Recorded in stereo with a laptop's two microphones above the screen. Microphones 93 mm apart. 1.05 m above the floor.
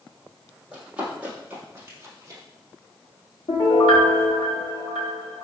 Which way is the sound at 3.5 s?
70° left (ahead or behind).